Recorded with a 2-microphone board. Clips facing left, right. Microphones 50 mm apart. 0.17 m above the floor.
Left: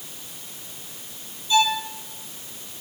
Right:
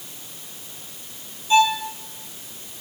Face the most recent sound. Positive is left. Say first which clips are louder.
# right 3 dB
turn(degrees=-35)  # may be behind; listen again after turning